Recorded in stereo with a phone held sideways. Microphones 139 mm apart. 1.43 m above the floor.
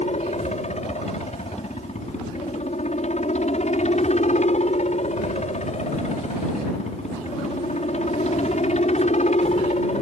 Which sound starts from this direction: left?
A helicopter, at 0.0 s.